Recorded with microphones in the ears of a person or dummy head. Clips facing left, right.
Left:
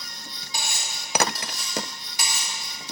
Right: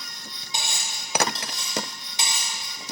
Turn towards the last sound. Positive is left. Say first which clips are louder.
# even
turn(degrees=-20)  # may be behind; listen again after turning